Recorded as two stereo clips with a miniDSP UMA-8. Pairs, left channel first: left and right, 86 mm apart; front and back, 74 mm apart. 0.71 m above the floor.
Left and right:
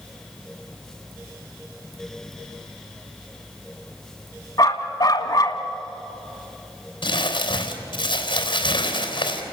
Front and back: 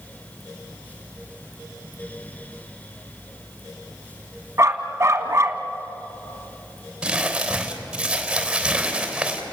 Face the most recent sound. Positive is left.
turn(degrees=100)